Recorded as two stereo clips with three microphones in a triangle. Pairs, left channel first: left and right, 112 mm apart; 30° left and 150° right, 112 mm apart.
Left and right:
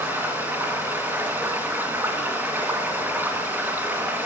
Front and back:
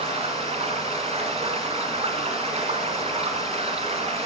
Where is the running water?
160° right, 2 m.